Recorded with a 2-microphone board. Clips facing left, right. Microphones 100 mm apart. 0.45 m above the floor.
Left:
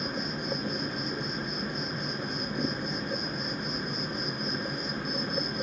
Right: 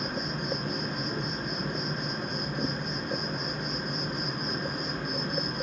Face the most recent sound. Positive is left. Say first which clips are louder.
# even
turn(degrees=-65)  # may be behind; listen again after turning